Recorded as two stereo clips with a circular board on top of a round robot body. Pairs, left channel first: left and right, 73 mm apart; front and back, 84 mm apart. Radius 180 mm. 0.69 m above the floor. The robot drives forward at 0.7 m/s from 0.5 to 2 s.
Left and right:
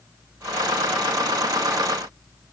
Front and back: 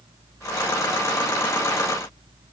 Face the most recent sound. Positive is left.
No sound to turn to.